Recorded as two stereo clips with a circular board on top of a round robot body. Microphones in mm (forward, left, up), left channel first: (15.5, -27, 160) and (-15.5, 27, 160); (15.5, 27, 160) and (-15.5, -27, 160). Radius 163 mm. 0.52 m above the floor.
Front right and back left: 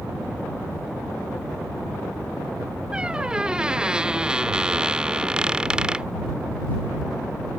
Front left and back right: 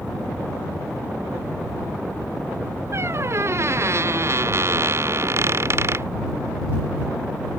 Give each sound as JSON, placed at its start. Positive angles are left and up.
{"t": 2.9, "sound": "a squeak", "azimuth_deg": -165}